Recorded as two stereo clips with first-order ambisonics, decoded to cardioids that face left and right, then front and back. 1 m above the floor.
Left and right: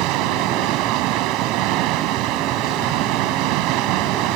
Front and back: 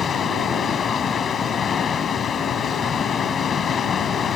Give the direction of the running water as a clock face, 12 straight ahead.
2 o'clock.